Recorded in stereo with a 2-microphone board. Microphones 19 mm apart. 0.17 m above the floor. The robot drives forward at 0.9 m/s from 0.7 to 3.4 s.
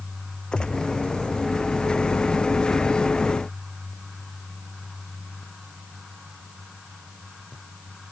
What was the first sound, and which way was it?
A gunshot, 60° left (ahead or behind).